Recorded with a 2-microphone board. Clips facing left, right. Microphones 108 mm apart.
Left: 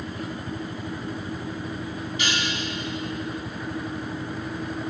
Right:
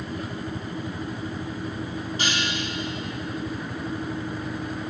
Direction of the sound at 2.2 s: 40° right (ahead or behind).